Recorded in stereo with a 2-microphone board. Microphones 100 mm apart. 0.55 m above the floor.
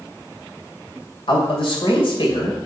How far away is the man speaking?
About 2.5 m.